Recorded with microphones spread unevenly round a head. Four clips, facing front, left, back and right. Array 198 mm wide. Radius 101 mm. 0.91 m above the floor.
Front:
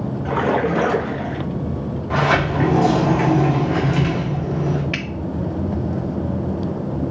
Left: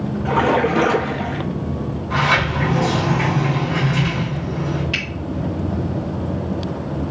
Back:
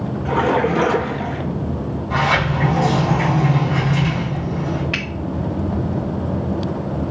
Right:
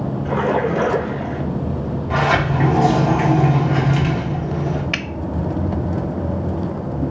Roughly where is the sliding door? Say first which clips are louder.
Right 1 dB, front 1 dB; ahead.